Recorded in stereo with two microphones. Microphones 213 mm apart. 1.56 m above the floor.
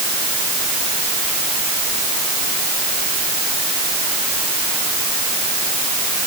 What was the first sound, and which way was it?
Only background noise.